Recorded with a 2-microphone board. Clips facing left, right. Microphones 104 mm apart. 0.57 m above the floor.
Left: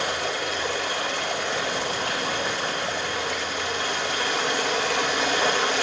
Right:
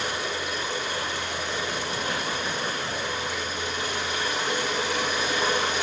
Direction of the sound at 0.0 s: 70° left (ahead or behind).